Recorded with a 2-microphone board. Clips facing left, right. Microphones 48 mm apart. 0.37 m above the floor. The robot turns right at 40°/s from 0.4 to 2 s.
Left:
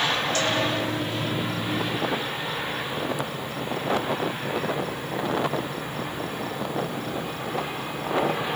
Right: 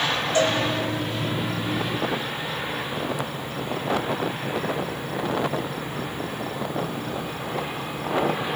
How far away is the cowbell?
About 6.5 m.